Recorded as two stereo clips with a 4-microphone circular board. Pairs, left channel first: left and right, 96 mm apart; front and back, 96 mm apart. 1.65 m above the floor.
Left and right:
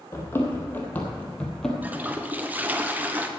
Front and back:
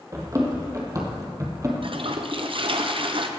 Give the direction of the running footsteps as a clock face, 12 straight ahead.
7 o'clock.